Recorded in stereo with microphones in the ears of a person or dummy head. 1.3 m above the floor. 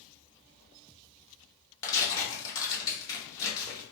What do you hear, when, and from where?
1.8 s tearing paper: 25° left (ahead or behind), 0.8 m